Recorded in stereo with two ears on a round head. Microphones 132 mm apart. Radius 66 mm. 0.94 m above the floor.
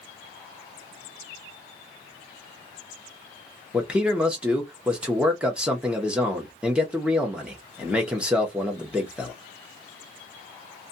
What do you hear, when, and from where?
3.7 s a man speaking: 5° right (ahead or behind), 0.8 m